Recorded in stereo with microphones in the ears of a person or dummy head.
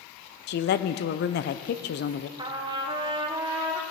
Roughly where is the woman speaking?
Left.